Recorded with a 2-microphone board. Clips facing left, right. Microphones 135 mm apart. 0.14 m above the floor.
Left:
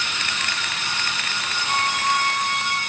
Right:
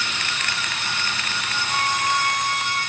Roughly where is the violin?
Left.